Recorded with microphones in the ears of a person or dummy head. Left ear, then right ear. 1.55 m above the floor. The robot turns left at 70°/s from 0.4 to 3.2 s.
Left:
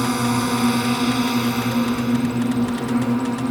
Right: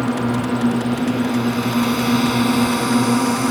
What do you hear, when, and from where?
0.0 s a drone: 90° left; by 3.5 s 105° right